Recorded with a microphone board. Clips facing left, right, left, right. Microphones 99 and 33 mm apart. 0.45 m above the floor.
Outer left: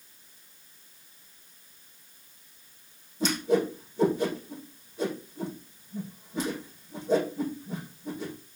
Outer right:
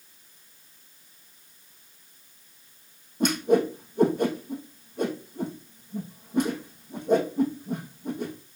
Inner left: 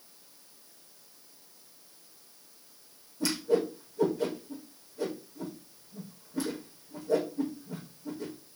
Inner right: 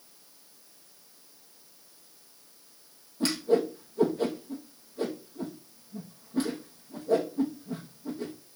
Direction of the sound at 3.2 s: 55° right (ahead or behind).